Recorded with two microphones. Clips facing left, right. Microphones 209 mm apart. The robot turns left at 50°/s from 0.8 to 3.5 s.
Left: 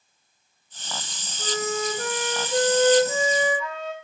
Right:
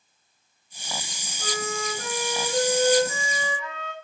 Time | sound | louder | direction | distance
1.4 | a flute | left 4 dB | 140° left | 2.5 m